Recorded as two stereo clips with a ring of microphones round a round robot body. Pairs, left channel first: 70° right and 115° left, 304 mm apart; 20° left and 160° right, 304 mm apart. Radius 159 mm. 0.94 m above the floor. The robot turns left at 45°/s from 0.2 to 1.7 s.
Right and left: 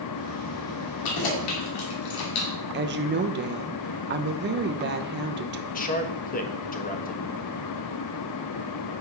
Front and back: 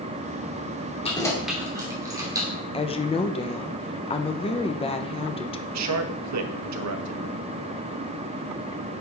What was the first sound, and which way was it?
Keys jangling, 50° right.